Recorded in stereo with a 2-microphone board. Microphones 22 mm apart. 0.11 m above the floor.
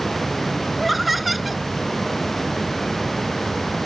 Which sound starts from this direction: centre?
Laughter, at 0.8 s.